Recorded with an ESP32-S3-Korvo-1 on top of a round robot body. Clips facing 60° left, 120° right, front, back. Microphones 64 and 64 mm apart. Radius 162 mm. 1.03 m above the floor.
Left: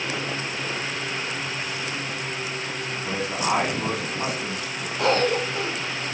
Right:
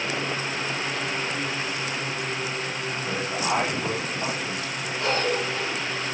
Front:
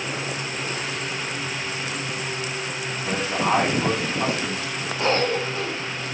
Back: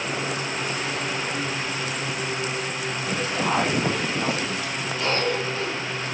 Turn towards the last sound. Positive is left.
turn(degrees=50)